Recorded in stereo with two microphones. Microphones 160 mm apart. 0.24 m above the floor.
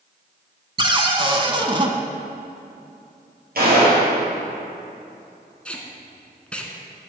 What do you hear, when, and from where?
0.8 s a cupboard door: 30° right (ahead or behind), 0.8 m
3.5 s a gunshot: 70° right (ahead or behind), 3.5 m
5.7 s tape being pulled: 5° left (ahead or behind), 1.1 m